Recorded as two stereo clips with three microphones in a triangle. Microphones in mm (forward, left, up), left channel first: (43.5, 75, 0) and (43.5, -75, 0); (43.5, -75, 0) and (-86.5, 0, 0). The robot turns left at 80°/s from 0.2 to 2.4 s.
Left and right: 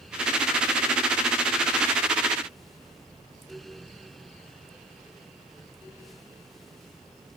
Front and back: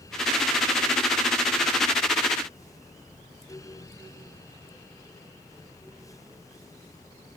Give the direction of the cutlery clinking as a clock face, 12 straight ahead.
I don't hear cutlery clinking.